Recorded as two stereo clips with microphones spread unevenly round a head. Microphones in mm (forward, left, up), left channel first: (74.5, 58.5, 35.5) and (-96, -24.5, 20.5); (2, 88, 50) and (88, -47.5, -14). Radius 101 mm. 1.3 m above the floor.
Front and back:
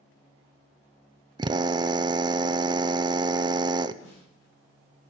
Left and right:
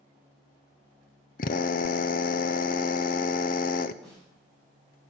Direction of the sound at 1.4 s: 160° left.